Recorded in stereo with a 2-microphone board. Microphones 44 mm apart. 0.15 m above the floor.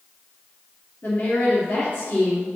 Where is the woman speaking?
45° left (ahead or behind), 1.8 m.